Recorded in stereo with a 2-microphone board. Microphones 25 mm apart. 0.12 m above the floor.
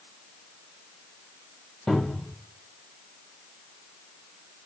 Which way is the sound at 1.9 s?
25° left (ahead or behind).